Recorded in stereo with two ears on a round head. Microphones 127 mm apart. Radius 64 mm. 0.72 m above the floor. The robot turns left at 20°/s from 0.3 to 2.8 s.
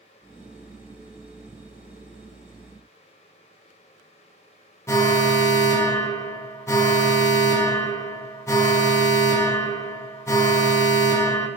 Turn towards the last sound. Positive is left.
turn(degrees=20)  # may be behind; listen again after turning